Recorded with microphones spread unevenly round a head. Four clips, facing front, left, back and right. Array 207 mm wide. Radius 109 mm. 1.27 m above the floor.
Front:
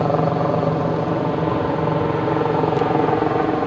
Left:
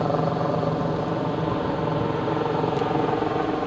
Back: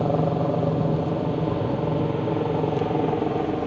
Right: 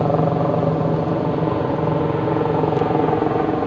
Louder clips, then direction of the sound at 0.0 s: Right 5 dB, front 4 dB; 60° right.